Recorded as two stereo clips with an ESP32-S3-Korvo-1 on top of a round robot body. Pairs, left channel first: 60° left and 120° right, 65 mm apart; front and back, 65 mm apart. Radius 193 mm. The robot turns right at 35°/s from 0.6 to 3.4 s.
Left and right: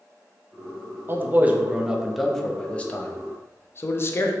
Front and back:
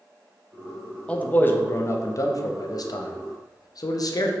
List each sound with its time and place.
1.1 s a man speaking: 70° right, 0.6 m; by 4.3 s 10° left, 0.6 m